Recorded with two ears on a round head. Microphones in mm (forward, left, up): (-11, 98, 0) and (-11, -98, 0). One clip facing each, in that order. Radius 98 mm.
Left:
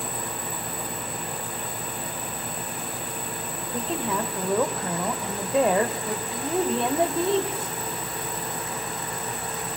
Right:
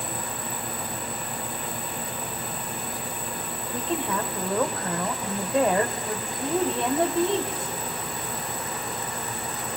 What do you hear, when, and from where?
3.7 s a woman speaking: 5° left (ahead or behind), 1.9 m